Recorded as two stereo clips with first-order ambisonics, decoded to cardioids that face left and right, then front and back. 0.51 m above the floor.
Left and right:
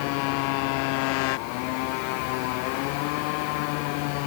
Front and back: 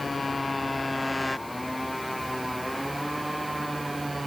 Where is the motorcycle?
80° left; by 4.3 s 95° left.